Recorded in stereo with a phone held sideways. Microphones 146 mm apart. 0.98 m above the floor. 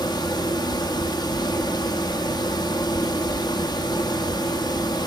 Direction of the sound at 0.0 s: 30° left (ahead or behind).